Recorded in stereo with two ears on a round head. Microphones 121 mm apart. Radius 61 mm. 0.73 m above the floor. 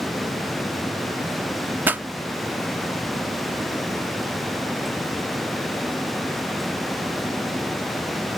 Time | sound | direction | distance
1.9 | a pop | 15° right (ahead or behind) | ?